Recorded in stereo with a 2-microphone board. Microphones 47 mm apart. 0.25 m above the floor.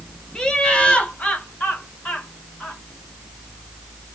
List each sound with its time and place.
0.3 s laughter: 15° left (ahead or behind), 1.2 m; by 2.8 s 40° left (ahead or behind), 2 m